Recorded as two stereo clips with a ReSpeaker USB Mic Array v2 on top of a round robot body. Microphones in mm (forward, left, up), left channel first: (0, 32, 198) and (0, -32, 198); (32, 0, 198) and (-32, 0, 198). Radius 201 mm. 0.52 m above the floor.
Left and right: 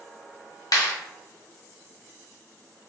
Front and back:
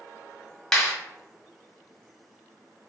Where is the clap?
80° left, 1.4 m.